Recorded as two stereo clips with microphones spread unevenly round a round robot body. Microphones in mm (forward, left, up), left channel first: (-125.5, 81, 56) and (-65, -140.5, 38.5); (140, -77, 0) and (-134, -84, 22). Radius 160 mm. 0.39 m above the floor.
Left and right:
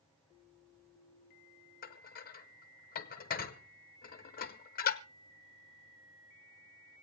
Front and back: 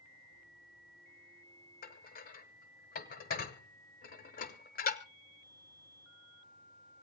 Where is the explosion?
I don't hear an explosion.